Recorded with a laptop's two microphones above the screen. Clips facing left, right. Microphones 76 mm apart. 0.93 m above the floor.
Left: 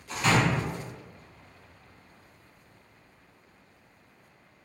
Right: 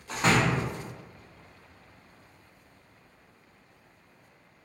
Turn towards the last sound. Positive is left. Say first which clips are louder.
# even
turn(degrees=-35)  # may be behind; listen again after turning